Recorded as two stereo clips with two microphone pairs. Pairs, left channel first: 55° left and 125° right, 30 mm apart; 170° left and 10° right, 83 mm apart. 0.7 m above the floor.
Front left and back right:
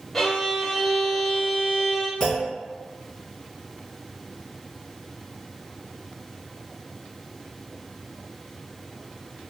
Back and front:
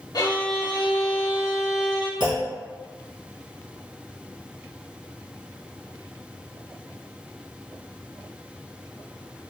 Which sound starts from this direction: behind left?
A violin, at 0.1 s.